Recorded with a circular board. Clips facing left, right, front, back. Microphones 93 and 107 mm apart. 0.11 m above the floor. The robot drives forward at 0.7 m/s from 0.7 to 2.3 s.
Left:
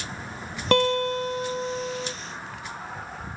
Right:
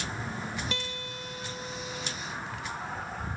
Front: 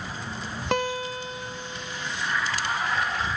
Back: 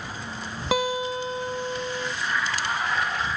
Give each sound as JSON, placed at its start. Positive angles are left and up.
{"t": 0.7, "sound": "a guitar", "azimuth_deg": 95}